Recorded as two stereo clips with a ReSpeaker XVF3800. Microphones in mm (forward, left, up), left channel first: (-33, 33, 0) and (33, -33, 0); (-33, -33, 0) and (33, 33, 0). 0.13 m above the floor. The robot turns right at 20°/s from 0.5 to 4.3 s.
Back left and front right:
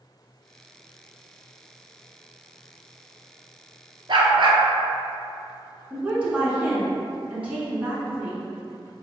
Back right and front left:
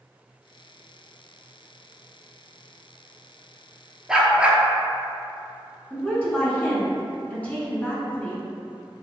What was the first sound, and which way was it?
A dog barking, 40° right.